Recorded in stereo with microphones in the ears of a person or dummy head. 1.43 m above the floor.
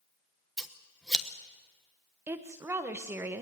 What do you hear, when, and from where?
0.6 s scissors: centre (ahead or behind), 1.2 m
2.3 s a woman speaking: 10° right (ahead or behind), 1.1 m